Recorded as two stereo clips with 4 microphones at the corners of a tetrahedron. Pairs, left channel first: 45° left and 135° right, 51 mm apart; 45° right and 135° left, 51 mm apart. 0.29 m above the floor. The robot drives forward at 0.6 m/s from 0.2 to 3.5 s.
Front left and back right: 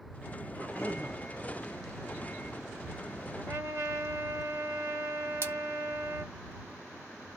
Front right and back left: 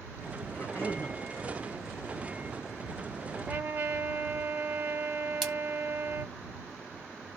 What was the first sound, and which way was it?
A cough, straight ahead.